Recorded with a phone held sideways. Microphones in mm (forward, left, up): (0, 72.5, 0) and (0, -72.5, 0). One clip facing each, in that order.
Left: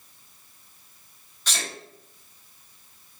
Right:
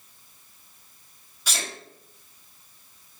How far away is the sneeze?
About 1.0 m.